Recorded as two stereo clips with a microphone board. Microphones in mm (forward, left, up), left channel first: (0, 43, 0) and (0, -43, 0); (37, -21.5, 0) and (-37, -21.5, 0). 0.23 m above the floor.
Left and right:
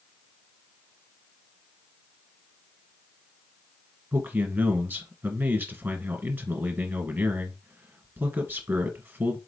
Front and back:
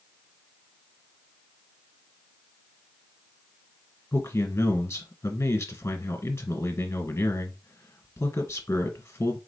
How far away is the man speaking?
About 1.6 m.